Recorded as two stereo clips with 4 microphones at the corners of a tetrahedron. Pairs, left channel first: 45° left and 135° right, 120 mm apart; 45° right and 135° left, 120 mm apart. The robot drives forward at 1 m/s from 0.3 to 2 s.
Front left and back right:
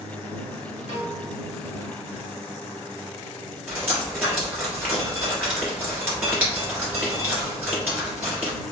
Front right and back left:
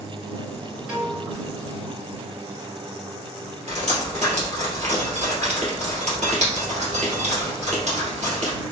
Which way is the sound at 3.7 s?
150° left.